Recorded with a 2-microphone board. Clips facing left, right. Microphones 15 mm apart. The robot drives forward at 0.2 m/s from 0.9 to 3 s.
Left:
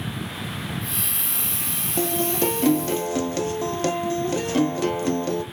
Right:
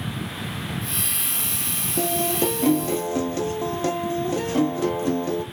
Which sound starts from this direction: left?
A guitar, at 2.0 s.